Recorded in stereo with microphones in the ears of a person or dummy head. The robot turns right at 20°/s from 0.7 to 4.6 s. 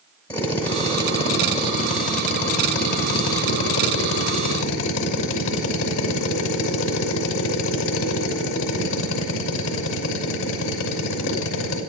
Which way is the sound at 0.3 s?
20° left.